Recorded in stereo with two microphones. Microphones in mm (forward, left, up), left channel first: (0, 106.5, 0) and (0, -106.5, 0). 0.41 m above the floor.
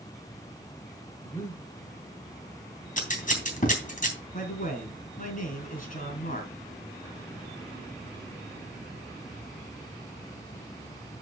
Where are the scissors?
40° left (ahead or behind), 3 m.